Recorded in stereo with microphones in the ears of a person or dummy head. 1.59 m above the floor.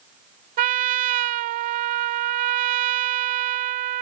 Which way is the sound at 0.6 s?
40° right (ahead or behind).